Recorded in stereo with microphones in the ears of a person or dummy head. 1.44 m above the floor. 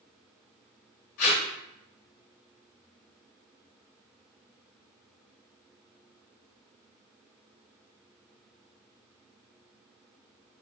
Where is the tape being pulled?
55° left (ahead or behind), 1.7 m.